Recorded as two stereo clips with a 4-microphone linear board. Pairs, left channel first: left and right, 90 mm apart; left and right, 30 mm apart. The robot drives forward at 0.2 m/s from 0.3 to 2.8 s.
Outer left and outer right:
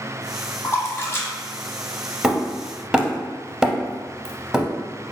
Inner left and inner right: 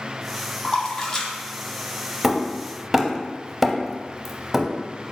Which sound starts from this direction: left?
A splash, at 0.6 s.